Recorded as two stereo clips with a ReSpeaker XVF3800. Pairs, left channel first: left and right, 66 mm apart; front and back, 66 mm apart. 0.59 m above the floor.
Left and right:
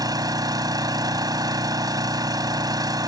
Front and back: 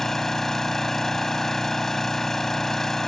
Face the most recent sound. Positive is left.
turn(degrees=-85)